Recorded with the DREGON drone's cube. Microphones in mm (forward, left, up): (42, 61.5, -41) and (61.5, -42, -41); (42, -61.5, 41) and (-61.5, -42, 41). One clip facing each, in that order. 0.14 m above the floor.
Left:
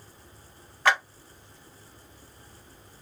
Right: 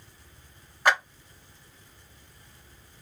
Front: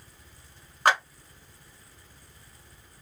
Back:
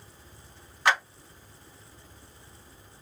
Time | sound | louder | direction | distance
0.8 | a clap | even, front 2 dB | 5° right | 2.0 m